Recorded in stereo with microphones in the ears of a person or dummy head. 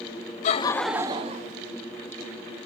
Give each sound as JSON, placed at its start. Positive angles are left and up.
{"t": 0.4, "sound": "laughter", "side_deg": 40, "distance_m": 0.7}